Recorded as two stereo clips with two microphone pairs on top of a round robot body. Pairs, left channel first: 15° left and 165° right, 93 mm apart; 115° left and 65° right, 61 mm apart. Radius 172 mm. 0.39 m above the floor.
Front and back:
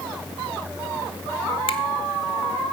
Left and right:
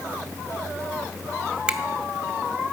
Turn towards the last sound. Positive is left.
turn(degrees=10)